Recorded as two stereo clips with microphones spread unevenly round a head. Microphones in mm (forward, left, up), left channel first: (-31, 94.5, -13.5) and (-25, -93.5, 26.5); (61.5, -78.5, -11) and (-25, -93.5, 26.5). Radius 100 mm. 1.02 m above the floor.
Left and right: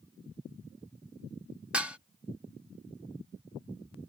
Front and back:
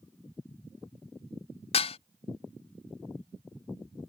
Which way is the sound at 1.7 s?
5° right.